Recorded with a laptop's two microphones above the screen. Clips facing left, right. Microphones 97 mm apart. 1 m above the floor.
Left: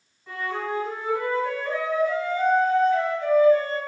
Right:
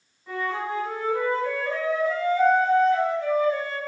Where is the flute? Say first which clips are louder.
Right 1 dB; centre (ahead or behind), 1.5 m.